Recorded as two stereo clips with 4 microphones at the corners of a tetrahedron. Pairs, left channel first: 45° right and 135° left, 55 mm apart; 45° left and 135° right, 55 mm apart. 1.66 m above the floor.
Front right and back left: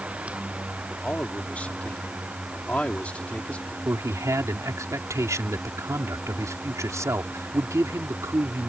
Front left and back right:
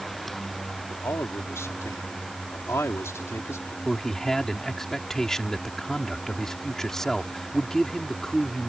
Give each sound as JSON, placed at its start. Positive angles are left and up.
{"t": 0.9, "sound": "a man speaking", "azimuth_deg": 20}
{"t": 3.9, "sound": "a man speaking", "azimuth_deg": 125}